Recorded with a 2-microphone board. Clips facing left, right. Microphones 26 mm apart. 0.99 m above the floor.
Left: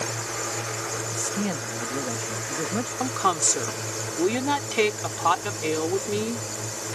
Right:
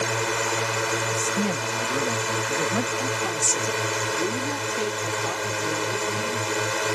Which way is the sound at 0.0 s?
65° right (ahead or behind).